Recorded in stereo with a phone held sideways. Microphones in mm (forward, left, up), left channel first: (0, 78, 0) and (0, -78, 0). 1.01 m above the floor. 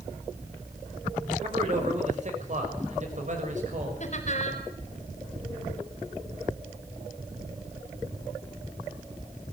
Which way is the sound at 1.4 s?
50° right (ahead or behind).